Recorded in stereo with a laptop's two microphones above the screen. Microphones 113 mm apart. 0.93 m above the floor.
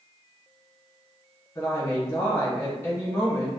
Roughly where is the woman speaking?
Left.